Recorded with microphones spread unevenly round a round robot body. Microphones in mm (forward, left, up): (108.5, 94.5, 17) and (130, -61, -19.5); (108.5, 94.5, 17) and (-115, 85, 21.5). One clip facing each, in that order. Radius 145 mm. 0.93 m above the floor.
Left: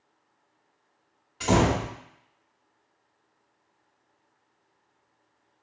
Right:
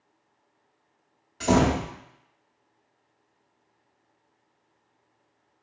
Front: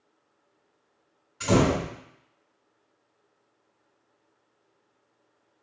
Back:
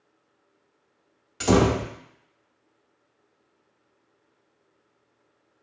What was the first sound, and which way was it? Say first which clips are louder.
A door slam: right 1 dB, back 2 dB; 150° right.